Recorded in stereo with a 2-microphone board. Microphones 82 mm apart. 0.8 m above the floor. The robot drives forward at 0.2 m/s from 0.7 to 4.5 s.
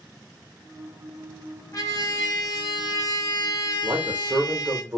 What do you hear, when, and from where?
1.7 s a trumpet: 45° left (ahead or behind), 1.0 m; by 4.8 s 55° left (ahead or behind), 0.9 m
3.8 s a man speaking: 25° right (ahead or behind), 1.0 m